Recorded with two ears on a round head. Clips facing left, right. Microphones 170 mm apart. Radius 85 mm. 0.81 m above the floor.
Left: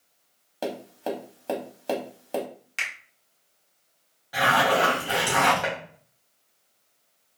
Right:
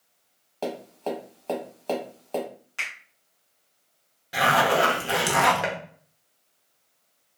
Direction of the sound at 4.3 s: 30° right (ahead or behind).